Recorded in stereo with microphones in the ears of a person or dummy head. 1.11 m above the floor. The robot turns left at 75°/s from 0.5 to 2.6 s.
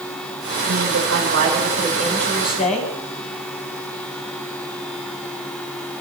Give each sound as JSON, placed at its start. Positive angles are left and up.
{"t": 0.7, "sound": "a man speaking", "azimuth_deg": -65, "distance_m": 5.0}